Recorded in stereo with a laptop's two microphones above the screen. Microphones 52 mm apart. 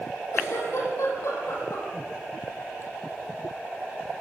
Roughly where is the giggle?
Left.